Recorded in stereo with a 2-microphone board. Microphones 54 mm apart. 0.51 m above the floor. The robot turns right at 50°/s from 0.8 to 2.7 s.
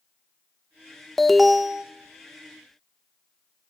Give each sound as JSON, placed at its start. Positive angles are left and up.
{"t": 1.2, "sound": "an alarm", "side_deg": 5, "distance_m": 0.5}